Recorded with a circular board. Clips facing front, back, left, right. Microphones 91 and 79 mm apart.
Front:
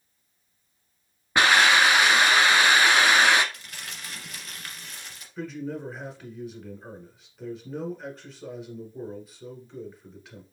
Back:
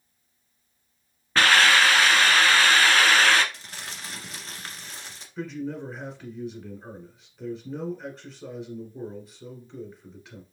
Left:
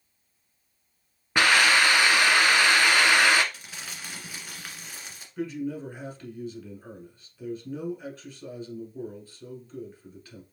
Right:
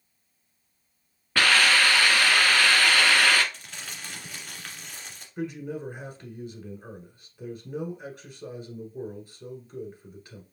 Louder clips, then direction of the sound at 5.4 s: Back 1 dB, left 1 dB; 100° right.